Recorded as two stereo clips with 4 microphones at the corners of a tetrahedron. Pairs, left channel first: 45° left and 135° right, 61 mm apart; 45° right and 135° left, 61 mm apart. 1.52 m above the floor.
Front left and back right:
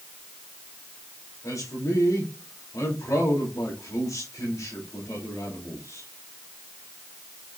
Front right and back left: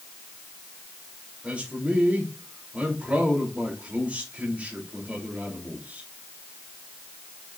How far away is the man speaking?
About 4 m.